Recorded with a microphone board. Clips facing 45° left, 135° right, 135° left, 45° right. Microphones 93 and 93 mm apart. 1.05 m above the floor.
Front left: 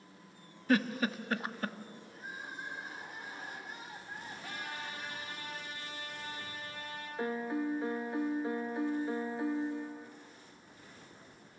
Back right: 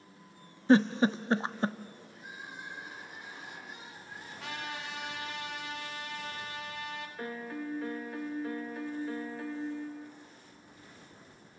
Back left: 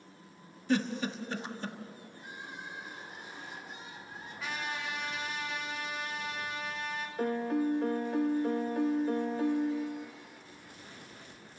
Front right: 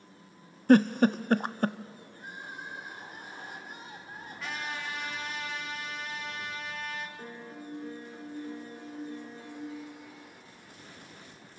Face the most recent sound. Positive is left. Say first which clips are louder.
# front left 6 dB, back left 13 dB
turn(degrees=115)